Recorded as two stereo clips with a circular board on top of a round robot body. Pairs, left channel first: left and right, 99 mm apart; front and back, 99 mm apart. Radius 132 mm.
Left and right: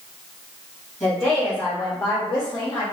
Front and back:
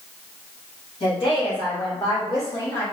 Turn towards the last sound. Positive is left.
turn(degrees=60)